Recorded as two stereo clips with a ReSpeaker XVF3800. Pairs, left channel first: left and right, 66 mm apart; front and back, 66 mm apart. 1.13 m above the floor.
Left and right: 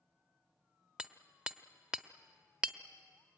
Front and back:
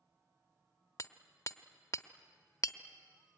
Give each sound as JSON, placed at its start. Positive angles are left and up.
{"t": 1.0, "sound": "hammering", "azimuth_deg": -15, "distance_m": 0.9}